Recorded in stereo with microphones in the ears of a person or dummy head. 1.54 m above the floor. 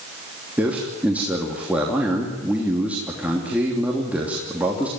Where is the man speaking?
10° right (ahead or behind), 3 m.